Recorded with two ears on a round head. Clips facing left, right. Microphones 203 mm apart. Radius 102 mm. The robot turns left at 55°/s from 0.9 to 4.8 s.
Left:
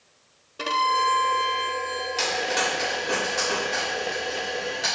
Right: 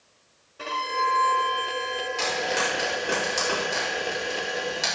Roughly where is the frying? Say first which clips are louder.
Left 1 dB; left.